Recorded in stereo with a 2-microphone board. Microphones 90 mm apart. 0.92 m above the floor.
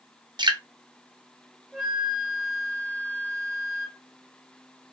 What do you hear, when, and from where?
0.4 s dripping: 55° right (ahead or behind), 0.7 m
1.7 s a flute: centre (ahead or behind), 1.1 m